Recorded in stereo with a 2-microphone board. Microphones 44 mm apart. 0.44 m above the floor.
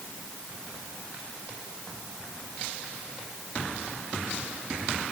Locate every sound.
Only background noise.